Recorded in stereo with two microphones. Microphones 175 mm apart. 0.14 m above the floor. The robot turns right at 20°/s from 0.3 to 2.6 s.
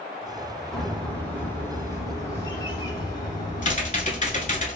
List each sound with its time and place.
0.7 s a bird: 5° left, 0.8 m; by 4.6 s 40° left, 0.8 m
3.6 s typing on a keyboard: 45° left (ahead or behind), 0.6 m